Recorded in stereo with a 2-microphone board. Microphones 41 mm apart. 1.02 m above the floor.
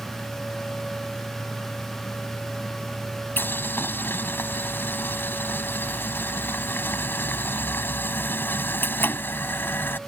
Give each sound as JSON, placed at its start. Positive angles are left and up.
{"t": 3.4, "sound": "boiling", "side_deg": 60}